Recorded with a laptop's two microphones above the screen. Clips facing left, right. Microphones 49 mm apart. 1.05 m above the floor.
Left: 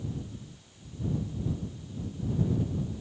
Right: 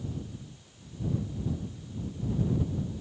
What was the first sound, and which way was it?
Only background noise.